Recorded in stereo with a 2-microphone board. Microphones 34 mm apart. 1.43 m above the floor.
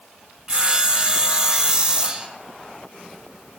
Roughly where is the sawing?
Right.